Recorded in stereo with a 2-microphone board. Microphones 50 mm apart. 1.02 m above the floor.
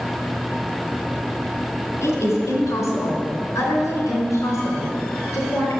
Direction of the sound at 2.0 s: 75° left (ahead or behind).